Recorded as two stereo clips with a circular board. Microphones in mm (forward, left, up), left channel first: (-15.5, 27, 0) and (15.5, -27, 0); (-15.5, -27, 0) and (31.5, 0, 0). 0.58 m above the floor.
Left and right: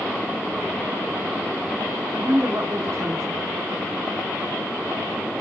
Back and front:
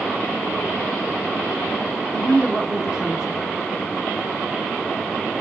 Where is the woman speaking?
45° right, 2.5 m.